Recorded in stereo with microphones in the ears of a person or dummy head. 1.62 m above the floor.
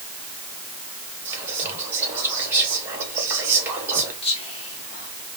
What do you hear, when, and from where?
1.2 s whispering: 15° right (ahead or behind), 1.9 m
4.2 s whispering: 30° left (ahead or behind), 1.8 m